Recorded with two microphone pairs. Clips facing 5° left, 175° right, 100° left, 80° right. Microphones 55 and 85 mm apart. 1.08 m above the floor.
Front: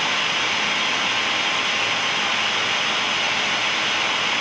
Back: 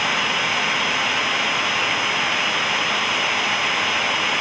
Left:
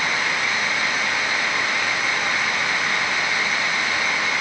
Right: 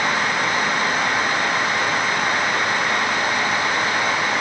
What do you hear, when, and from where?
Only background noise.